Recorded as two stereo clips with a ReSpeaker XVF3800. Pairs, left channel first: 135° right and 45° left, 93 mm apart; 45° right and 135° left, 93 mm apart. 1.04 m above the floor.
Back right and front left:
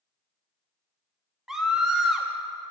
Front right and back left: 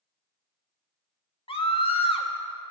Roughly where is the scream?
Ahead right.